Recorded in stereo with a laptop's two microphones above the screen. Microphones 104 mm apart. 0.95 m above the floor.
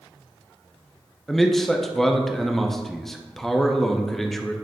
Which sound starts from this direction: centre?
A man speaking, at 1.3 s.